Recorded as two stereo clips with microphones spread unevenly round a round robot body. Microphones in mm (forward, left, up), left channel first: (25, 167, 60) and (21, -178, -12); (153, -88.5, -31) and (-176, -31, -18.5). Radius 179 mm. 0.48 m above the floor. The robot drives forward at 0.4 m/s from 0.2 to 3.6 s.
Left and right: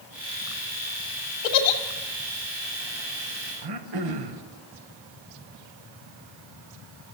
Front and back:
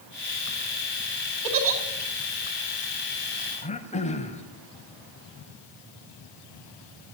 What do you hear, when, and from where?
1.4 s a giggle: 110° left, 2 m; by 1.8 s 115° left, 2 m
3.6 s throat clearing: 80° right, 1.8 m